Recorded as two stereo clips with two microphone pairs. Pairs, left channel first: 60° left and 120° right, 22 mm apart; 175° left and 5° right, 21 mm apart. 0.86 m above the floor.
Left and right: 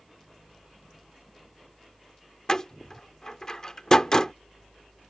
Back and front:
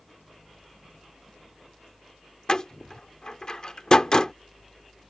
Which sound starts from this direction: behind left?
A door slam, at 2.5 s.